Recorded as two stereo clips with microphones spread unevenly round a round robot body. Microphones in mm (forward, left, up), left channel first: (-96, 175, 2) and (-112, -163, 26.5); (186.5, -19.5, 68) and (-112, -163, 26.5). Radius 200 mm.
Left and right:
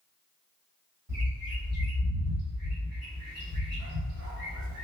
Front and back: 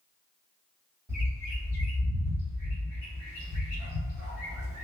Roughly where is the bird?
Right.